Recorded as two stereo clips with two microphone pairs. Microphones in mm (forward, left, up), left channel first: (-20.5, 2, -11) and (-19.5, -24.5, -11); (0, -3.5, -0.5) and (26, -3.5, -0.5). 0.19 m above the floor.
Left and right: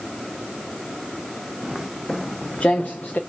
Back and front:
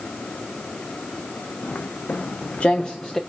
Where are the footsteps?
155° right, 0.8 m; by 3.2 s 105° left, 0.9 m.